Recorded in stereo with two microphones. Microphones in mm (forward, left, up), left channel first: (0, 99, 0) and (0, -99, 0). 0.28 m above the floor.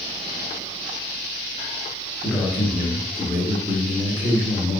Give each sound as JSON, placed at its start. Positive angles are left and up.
{"t": 2.2, "sound": "a man speaking", "side_deg": 0, "distance_m": 1.1}